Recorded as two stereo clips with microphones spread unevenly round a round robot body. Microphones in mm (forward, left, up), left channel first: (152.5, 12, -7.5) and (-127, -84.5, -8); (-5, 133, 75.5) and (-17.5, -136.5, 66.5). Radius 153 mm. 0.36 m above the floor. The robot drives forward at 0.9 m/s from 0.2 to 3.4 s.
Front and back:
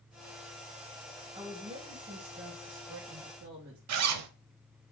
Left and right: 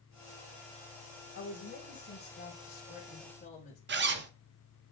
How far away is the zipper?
About 0.9 m.